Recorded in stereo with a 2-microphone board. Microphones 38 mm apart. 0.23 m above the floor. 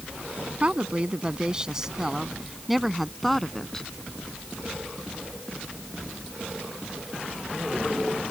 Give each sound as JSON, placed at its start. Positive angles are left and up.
{"t": 0.6, "sound": "a woman speaking", "side_deg": -35}